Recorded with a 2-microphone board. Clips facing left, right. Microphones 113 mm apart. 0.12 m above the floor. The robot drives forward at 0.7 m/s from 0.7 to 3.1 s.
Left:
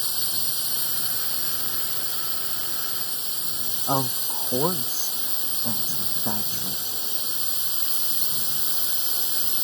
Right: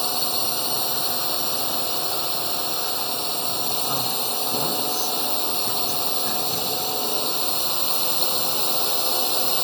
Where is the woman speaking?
35° left (ahead or behind).